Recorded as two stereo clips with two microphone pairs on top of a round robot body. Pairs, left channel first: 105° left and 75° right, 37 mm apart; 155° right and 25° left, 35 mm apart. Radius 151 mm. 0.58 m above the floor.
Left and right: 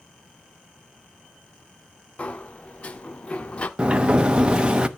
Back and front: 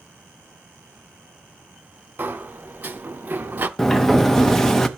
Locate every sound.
2.2 s a sliding door: 45° left, 0.8 m
3.8 s a sliding door: 60° right, 1.2 m